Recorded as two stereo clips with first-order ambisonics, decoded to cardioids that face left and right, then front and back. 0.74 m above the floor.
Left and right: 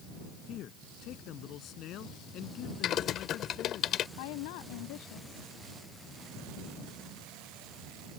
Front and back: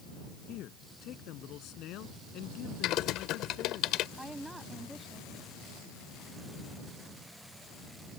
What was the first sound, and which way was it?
A man speaking, 45° left.